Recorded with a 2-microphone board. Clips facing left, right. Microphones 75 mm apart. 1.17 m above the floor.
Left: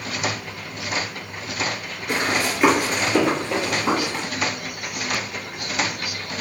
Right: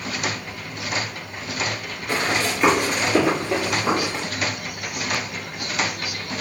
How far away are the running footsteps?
About 1.2 m.